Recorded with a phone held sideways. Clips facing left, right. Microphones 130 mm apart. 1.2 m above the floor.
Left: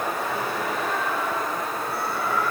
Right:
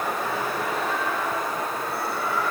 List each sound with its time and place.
Only background noise.